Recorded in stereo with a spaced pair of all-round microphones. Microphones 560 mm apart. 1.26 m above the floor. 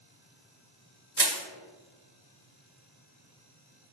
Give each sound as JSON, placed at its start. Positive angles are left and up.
{"t": 1.2, "sound": "crushing", "side_deg": -45, "distance_m": 1.0}